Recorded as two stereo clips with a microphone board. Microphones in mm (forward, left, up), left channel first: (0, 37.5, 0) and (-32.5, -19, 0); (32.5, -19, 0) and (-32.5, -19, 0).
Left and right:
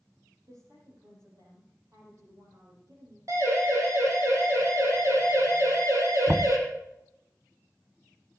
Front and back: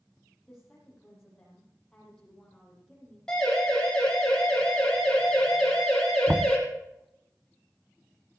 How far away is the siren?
About 7 m.